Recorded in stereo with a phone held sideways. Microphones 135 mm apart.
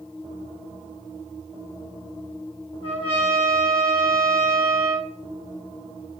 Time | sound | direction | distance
2.8 | a trumpet | 40° left (ahead or behind) | 1.1 m